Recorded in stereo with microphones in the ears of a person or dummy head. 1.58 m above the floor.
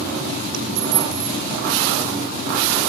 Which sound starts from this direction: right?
A dropped coin, at 0.5 s.